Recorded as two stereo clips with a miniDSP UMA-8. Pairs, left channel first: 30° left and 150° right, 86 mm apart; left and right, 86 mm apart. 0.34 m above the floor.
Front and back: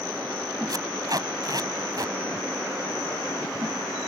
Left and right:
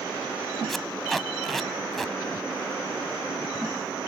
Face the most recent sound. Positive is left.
turn(degrees=180)